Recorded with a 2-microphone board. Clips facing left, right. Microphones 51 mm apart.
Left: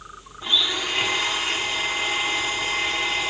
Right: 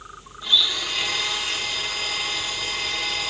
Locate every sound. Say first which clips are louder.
0.4 s a blender: even; 30° left (ahead or behind), 1.2 m